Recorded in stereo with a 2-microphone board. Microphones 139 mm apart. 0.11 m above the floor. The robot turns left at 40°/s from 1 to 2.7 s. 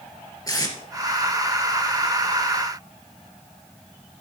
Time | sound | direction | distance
0.5 | tape being pulled | 25° left (ahead or behind) | 2.5 m